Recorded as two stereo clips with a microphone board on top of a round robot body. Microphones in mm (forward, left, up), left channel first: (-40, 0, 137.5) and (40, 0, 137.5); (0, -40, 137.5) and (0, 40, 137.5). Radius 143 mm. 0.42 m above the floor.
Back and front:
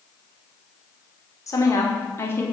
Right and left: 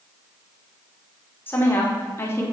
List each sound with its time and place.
1.5 s a woman speaking: 145° right, 2 m; by 2.5 s 130° right, 1.7 m